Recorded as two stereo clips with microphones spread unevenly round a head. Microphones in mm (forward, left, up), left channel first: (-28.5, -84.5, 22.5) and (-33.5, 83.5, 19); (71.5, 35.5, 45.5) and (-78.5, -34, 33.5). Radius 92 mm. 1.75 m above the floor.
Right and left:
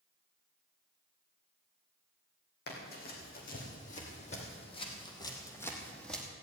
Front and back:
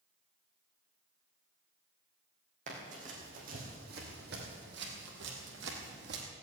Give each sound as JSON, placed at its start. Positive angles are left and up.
{"t": 2.7, "sound": "running footsteps", "azimuth_deg": -105, "distance_m": 4.0}